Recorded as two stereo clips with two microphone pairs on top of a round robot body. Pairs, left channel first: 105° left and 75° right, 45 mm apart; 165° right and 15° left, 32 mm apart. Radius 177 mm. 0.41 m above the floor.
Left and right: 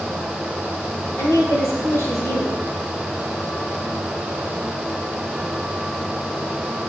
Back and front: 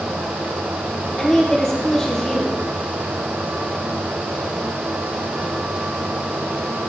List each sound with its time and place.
1.2 s a woman speaking: 130° left, 4 m